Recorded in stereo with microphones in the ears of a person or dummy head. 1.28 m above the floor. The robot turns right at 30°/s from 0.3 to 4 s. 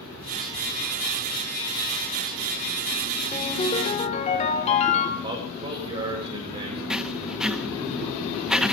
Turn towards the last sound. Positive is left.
turn(degrees=-10)  # may be behind; listen again after turning